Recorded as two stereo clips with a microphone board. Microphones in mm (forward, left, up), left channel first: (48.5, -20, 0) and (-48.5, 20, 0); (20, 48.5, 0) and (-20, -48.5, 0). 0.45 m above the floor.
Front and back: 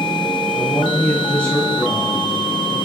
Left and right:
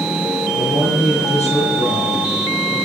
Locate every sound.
0.5 s a man speaking: 45° left, 6 m; by 2.9 s 75° left, 5 m